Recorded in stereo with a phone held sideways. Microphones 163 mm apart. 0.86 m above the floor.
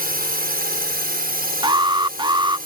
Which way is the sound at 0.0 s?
65° right (ahead or behind).